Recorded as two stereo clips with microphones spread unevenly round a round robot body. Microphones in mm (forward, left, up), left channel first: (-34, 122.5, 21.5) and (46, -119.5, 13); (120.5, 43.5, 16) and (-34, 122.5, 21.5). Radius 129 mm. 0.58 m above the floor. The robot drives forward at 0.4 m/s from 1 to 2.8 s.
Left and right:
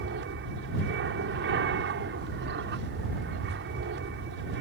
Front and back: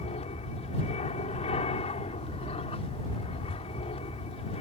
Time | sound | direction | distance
0.0 | an aircraft | 65° right | ?